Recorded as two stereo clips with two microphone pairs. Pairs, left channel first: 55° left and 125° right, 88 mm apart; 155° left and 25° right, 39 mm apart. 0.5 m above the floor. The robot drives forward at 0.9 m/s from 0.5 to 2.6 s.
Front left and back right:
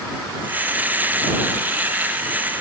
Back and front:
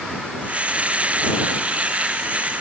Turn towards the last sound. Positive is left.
No sound to turn to.